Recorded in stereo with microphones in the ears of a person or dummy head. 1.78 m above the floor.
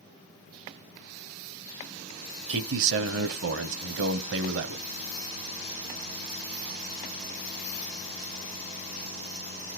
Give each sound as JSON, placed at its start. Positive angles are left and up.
{"t": 2.5, "sound": "a man speaking", "side_deg": -70, "distance_m": 1.1}